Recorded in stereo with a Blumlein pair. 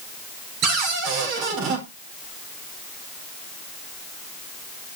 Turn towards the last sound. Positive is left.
turn(degrees=-35)